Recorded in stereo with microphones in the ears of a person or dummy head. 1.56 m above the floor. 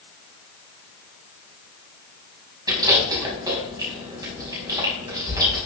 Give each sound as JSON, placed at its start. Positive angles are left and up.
{"t": 2.7, "sound": "chewing", "side_deg": -20, "distance_m": 4.5}